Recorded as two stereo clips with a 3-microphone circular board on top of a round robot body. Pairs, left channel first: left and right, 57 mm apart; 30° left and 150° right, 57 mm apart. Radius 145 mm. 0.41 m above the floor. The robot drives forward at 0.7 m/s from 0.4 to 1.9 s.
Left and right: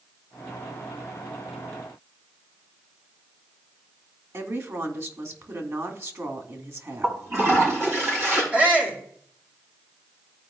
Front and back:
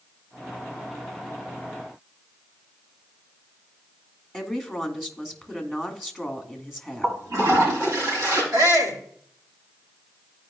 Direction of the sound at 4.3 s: 65° right.